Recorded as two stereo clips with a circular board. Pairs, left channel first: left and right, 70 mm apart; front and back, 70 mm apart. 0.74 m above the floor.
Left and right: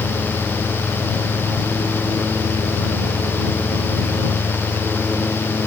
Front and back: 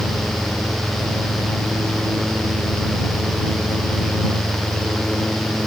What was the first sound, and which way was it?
Only background noise.